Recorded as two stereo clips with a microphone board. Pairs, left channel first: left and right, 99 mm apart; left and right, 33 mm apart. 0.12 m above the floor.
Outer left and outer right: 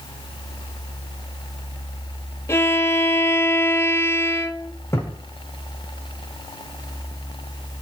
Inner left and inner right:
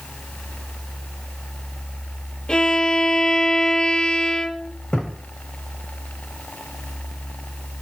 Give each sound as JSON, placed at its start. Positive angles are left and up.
{"t": 2.5, "sound": "a violin", "side_deg": 25, "distance_m": 0.7}
{"t": 4.9, "sound": "a thud", "side_deg": 25, "distance_m": 3.5}